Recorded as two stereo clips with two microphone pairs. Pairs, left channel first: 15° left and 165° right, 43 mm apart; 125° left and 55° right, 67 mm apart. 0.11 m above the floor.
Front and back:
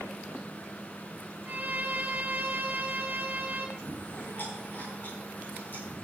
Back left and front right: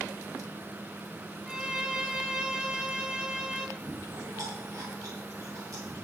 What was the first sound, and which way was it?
A violin, 125° right.